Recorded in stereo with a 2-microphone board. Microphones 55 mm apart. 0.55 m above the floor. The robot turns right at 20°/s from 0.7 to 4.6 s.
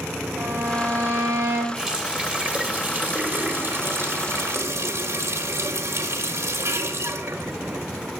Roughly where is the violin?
Right.